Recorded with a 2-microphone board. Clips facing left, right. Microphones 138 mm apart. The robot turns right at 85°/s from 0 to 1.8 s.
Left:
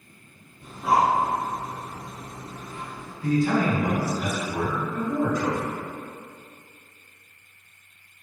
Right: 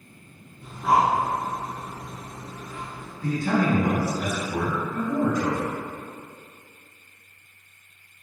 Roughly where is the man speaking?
Right.